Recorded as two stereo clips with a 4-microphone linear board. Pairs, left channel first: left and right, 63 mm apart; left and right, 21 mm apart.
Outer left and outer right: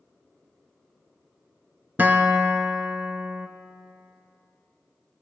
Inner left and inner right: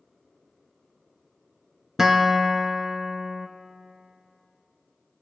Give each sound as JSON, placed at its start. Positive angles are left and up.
{"t": 2.0, "sound": "a guitar", "side_deg": -30, "distance_m": 0.8}